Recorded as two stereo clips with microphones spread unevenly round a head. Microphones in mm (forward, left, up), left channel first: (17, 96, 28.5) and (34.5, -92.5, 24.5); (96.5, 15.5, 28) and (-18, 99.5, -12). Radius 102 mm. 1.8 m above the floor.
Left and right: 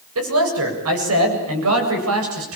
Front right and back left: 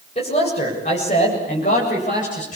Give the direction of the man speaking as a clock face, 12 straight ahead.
3 o'clock.